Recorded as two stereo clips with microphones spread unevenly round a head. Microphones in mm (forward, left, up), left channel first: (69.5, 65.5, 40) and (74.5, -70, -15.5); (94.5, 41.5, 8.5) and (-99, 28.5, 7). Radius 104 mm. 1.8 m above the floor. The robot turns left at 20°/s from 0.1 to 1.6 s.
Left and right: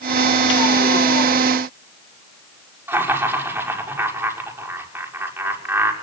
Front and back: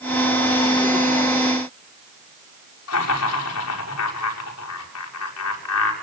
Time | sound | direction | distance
2.9 | laughter | 10° right | 6.5 m